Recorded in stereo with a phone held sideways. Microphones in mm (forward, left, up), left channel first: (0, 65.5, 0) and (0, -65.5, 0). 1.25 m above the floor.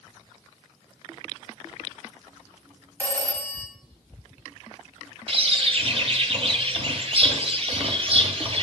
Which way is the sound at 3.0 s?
15° left (ahead or behind).